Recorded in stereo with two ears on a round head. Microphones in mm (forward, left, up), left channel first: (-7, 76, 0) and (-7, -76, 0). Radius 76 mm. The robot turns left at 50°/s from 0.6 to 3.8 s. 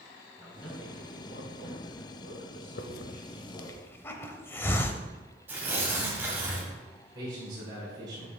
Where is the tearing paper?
10° right (ahead or behind), 2 m.